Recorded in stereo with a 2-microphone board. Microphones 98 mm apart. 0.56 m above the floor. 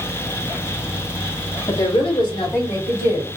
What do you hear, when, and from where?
1.7 s a woman speaking: 55° left (ahead or behind), 2.5 m; by 3.3 s 70° left (ahead or behind), 2 m